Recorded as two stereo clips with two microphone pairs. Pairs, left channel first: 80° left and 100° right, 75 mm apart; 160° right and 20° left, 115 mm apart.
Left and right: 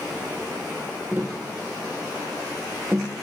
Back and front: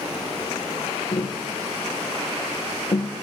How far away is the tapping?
About 1.3 m.